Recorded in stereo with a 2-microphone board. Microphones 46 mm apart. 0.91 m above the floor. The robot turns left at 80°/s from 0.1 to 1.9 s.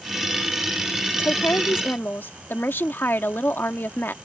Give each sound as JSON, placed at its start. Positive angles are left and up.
{"t": 1.1, "sound": "a woman speaking", "azimuth_deg": 120}